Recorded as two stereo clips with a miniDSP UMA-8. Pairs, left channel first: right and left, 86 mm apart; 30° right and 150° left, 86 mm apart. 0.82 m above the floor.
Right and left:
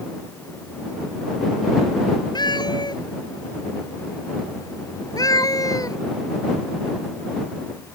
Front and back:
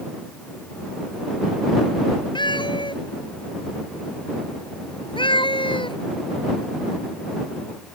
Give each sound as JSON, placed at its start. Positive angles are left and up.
{"t": 2.4, "sound": "a cat meowing", "azimuth_deg": -55}